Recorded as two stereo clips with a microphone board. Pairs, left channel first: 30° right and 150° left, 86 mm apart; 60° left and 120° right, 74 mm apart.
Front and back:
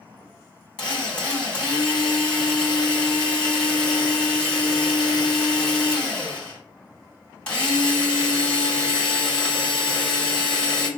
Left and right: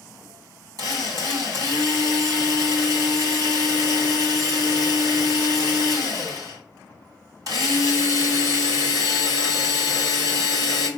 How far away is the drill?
About 2 m.